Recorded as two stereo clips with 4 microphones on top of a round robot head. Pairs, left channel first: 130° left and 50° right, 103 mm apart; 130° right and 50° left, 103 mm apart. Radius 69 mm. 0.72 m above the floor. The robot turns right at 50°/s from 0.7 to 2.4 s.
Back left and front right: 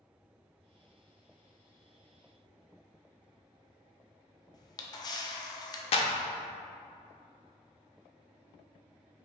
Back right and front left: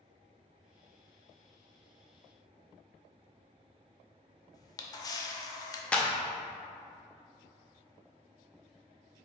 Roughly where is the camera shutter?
Behind.